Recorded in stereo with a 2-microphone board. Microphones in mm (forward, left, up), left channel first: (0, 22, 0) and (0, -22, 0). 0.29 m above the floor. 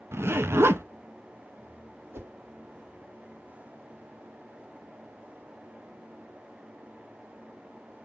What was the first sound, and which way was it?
A zipper, 70° right (ahead or behind).